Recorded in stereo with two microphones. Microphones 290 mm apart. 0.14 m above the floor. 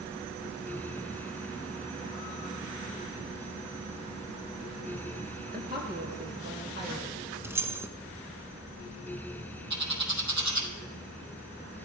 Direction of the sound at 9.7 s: 70° right (ahead or behind).